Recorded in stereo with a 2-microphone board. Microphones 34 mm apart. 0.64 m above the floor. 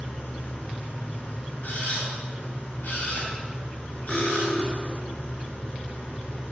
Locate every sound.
0.0 s an engine running: 60° left (ahead or behind), 4.5 m
1.6 s a camera shutter: 55° left (ahead or behind), 3.5 m
4.1 s cutlery clinking: 15° left (ahead or behind), 1.4 m